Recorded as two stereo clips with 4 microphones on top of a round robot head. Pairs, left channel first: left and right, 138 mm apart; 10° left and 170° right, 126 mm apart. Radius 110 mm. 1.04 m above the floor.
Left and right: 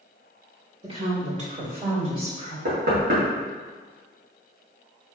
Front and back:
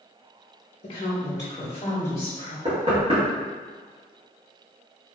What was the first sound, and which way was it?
A woman speaking, 45° right.